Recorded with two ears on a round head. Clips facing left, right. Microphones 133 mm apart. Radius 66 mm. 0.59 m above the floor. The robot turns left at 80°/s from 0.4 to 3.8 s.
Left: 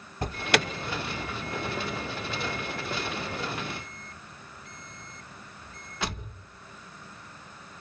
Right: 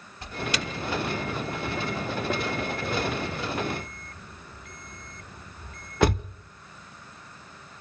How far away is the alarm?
About 0.8 m.